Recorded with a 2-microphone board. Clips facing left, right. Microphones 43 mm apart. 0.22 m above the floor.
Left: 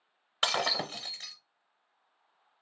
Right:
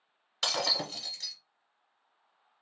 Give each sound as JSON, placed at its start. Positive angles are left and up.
{"t": 0.4, "sound": "breaking glass", "side_deg": 25, "distance_m": 0.7}